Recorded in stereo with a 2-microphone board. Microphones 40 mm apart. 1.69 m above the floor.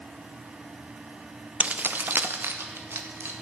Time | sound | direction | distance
1.6 | keys jangling | 30° right (ahead or behind) | 0.6 m